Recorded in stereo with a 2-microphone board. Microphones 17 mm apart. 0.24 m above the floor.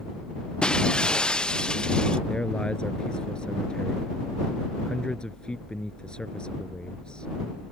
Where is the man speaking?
70° left (ahead or behind).